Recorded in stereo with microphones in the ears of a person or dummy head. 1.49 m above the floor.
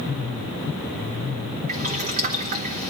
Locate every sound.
1.7 s boiling: 40° right (ahead or behind), 1.1 m